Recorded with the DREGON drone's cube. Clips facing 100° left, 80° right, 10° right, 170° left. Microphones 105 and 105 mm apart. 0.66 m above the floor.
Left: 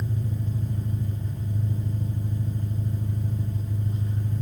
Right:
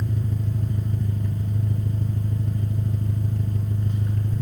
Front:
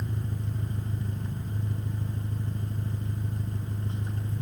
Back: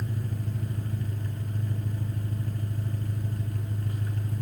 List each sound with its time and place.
0.0 s an engine running: 75° right, 6.5 m